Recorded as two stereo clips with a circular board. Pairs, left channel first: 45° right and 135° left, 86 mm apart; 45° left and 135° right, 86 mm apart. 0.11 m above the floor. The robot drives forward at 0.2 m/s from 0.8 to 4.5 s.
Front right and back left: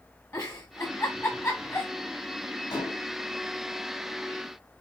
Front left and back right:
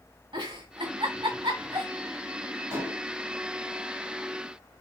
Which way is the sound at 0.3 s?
100° right.